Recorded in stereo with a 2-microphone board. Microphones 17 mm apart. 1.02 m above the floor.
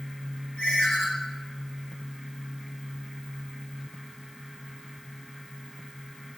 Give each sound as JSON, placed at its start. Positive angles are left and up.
{"t": 0.6, "sound": "a ringtone", "side_deg": 65, "distance_m": 1.4}